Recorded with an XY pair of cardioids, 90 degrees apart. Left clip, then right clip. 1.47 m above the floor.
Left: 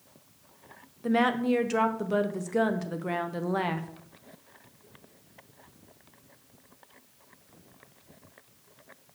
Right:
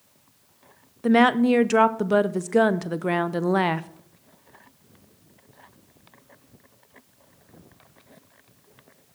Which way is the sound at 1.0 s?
60° right.